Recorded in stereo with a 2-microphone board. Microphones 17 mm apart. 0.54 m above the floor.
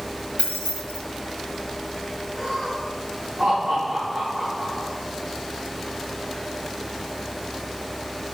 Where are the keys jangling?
70° right (ahead or behind), 2 m.